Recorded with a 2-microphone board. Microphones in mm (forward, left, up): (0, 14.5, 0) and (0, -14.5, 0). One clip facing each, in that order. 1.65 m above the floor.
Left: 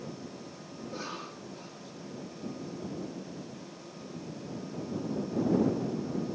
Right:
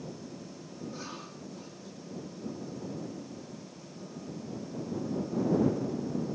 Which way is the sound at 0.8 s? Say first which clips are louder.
Left 3 dB; 20° left (ahead or behind).